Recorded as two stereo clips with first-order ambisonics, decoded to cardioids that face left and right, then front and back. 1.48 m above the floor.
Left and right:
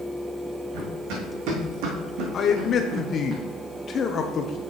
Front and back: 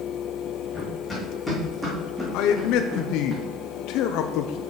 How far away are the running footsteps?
About 5 m.